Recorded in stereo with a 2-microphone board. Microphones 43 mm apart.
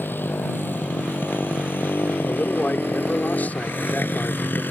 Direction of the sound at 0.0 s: 60° left (ahead or behind).